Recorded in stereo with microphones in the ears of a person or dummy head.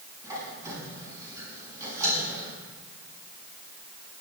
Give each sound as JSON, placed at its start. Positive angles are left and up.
{"t": 0.2, "sound": "a squeak", "side_deg": -20, "distance_m": 6.5}